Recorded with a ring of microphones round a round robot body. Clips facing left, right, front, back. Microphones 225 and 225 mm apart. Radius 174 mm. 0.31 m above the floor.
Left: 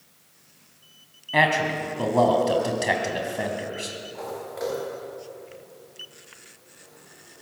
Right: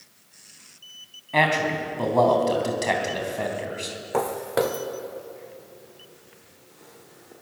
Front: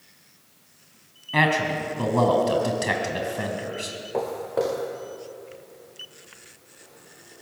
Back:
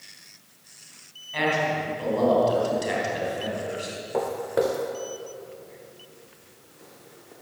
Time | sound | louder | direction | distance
1.3 | a man speaking | even, front 2 dB | 5° left | 3.5 m
4.1 | footsteps | right 11 dB, back 1 dB | 90° right | 1.9 m